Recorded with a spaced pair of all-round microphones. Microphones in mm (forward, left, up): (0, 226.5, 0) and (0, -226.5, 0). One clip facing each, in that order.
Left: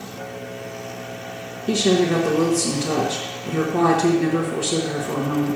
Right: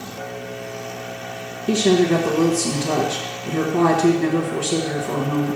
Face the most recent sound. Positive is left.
turn(degrees=-5)  # may be behind; listen again after turning